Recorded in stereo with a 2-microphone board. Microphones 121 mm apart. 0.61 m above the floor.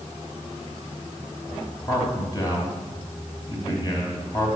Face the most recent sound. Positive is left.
turn(degrees=35)  # may be behind; listen again after turning